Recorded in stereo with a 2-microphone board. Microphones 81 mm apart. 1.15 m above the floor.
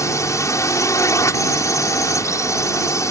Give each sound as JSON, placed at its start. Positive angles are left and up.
{"t": 0.0, "sound": "a drone", "side_deg": 40}